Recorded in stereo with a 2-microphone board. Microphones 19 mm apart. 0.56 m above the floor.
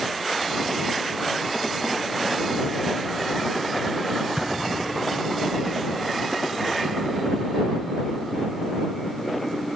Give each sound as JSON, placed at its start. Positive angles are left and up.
{"t": 4.4, "sound": "an explosion", "side_deg": -30}